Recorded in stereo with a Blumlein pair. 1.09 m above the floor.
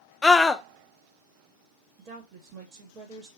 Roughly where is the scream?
Ahead.